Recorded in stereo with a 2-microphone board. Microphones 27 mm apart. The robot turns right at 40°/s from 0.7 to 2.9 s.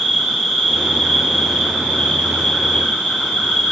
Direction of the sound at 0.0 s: 15° left.